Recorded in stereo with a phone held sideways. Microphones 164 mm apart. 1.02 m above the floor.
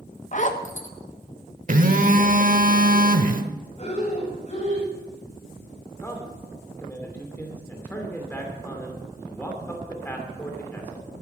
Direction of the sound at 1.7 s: 55° right (ahead or behind).